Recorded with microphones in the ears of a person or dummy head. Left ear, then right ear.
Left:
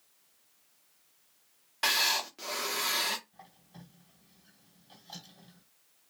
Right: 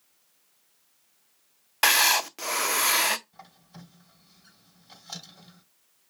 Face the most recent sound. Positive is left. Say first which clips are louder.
# right 5 dB
turn(degrees=-45)  # may be behind; listen again after turning